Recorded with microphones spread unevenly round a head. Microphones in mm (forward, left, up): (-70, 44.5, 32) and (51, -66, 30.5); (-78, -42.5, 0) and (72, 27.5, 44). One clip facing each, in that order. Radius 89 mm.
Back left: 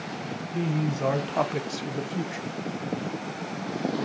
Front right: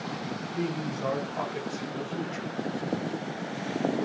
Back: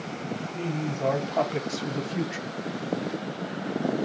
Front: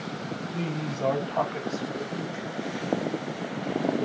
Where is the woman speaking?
95° left, 1.4 m; by 2.5 s 140° right, 1.2 m.